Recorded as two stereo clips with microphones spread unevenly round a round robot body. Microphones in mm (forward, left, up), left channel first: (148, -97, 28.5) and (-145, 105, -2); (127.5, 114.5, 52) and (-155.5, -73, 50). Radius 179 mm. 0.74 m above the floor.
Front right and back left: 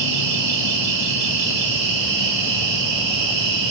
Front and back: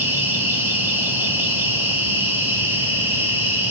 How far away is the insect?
About 1.6 m.